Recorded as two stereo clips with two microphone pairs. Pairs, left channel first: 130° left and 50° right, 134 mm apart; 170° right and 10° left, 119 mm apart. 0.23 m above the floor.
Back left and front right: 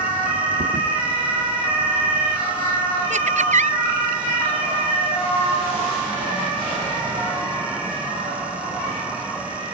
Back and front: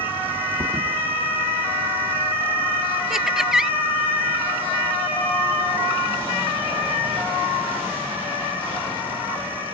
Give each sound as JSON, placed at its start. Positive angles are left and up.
{"t": 0.6, "sound": "a thud", "azimuth_deg": -45}
{"t": 3.1, "sound": "laughter", "azimuth_deg": -75}